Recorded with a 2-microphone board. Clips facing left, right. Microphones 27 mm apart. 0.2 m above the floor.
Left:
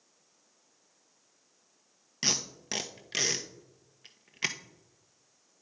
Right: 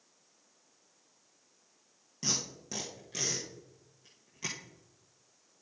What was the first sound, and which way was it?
Tape being pulled, 80° left.